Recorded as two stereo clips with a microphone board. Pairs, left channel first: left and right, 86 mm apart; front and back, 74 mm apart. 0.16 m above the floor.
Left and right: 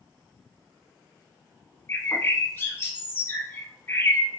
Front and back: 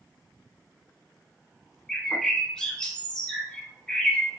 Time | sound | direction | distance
1.9 | a bird | 70° left | 0.6 m